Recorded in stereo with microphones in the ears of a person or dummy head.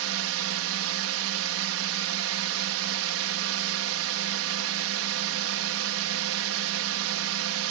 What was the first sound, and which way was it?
A drone, 70° right (ahead or behind).